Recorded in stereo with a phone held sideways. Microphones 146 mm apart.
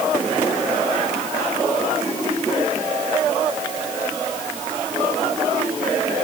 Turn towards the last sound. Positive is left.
No sound to turn to.